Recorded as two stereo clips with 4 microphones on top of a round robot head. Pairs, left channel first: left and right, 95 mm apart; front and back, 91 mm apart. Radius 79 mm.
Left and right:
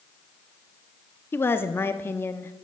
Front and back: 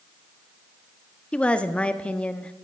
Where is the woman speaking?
65° left, 0.7 m.